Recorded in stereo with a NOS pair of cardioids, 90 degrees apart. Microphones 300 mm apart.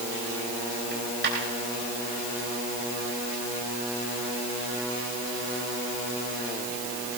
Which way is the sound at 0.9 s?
40° right.